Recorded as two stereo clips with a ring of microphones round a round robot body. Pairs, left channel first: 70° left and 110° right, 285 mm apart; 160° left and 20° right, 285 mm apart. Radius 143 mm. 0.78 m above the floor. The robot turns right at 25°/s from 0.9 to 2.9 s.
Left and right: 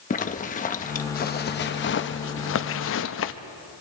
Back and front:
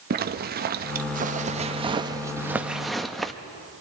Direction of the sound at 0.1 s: 20° left.